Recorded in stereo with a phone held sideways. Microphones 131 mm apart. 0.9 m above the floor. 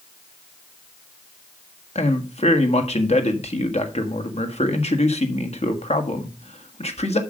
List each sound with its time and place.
1.9 s a man speaking: 55° left (ahead or behind), 1.5 m